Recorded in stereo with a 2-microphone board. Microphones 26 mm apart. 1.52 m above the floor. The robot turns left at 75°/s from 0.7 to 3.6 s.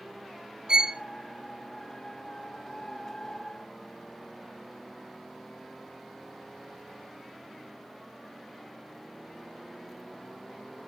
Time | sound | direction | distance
0.7 | a violin | 35° right (ahead or behind) | 0.8 m